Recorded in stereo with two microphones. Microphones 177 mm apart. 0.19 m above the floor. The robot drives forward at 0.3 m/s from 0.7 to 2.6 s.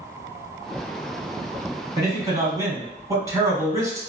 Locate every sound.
2.0 s a man speaking: 20° right (ahead or behind), 1.2 m; by 4.0 s 15° right (ahead or behind), 1.3 m